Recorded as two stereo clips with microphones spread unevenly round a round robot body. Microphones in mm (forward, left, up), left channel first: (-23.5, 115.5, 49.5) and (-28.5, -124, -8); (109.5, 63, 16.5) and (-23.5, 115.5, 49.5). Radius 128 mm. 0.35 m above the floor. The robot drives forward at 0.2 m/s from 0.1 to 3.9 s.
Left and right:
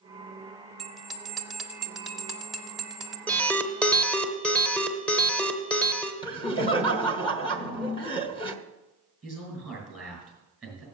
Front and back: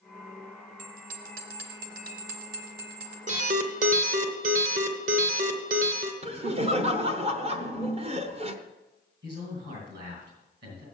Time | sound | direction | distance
0.8 | a bell | 170° right | 0.7 m
3.3 | an alarm | 175° right | 0.8 m
6.2 | laughter | 160° left | 1.0 m
9.2 | a man speaking | straight behind | 5.5 m